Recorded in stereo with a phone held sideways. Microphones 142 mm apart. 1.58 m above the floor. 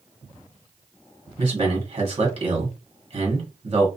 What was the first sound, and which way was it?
A man speaking, 40° right (ahead or behind).